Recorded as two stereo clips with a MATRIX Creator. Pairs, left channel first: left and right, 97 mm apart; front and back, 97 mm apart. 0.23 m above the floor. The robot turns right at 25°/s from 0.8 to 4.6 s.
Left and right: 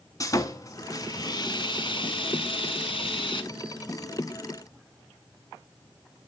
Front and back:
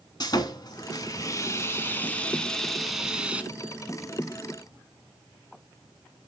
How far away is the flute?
No flute in this recording.